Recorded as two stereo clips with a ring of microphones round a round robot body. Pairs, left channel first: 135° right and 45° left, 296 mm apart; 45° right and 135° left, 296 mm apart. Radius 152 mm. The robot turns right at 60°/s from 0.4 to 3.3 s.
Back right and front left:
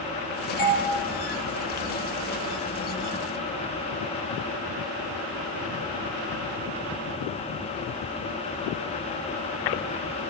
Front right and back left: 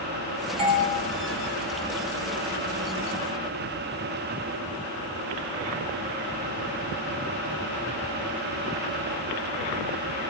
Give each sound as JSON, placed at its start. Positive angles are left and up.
{"t": 0.6, "sound": "a doorbell", "azimuth_deg": -155, "distance_m": 3.5}